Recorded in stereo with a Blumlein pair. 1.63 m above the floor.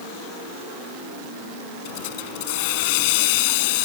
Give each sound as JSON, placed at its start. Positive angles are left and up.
{"t": 1.9, "sound": "a hiss", "azimuth_deg": 50}